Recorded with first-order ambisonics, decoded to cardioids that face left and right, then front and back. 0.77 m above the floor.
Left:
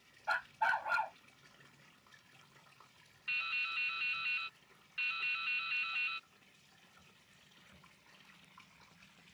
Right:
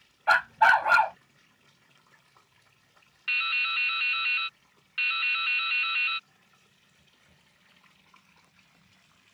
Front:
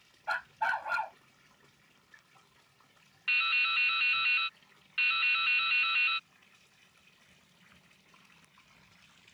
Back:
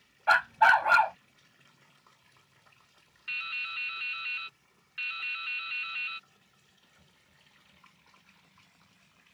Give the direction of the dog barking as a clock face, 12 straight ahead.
4 o'clock.